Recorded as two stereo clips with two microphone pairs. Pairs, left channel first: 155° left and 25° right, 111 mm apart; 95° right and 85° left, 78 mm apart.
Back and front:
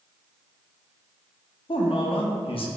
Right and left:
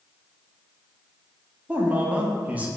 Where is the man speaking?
150° left, 0.6 m.